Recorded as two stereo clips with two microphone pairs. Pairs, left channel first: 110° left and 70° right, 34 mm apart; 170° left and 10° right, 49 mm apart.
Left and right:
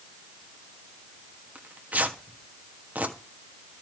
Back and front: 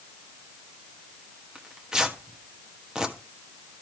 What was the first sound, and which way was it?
Tearing paper, 85° right.